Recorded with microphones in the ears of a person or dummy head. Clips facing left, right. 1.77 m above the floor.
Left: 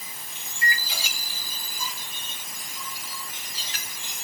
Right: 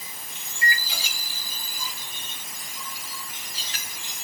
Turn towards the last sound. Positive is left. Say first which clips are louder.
# right 1 dB
turn(degrees=-70)  # may be behind; listen again after turning